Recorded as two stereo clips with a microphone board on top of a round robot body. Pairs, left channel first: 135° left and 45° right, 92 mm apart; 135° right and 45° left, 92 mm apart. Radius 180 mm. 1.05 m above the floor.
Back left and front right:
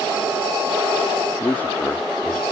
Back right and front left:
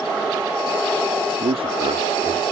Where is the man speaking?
60° left; by 2.4 s 65° left.